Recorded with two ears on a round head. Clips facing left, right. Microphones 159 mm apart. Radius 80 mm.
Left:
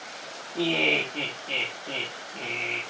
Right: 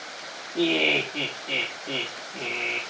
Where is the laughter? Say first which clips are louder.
Right 3 dB; 10° right (ahead or behind), 1.9 m.